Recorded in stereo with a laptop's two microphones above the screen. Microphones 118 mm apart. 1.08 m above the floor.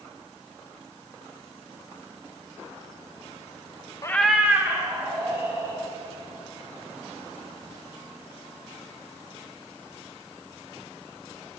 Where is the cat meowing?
30° left (ahead or behind), 0.5 m; by 5.8 s 30° right (ahead or behind), 3 m.